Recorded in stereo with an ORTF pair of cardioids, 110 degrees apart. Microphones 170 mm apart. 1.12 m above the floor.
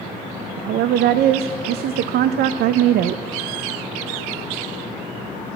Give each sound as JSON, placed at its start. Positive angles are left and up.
{"t": 0.6, "sound": "a woman speaking", "azimuth_deg": -65, "distance_m": 0.7}